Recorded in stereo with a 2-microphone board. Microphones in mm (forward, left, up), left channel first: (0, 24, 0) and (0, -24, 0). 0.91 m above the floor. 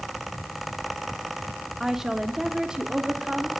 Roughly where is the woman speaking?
Centre.